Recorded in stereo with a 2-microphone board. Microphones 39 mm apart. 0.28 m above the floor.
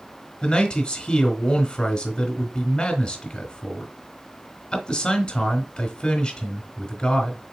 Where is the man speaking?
25° left (ahead or behind), 1.2 m.